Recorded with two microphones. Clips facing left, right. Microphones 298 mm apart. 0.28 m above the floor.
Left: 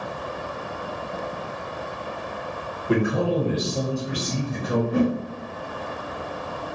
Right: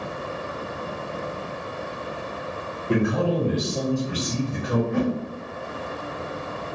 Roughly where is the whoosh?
Left.